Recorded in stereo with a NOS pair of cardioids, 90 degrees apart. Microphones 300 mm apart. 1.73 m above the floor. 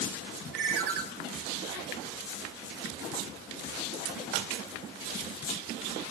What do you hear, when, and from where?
0.5 s a ringtone: 55° right, 3 m